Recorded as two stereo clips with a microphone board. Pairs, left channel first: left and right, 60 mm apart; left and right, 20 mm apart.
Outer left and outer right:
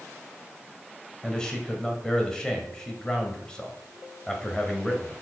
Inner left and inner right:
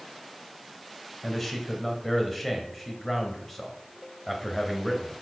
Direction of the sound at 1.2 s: 15° left (ahead or behind).